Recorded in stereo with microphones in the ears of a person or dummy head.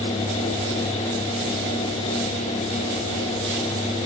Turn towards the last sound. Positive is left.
No sound to turn to.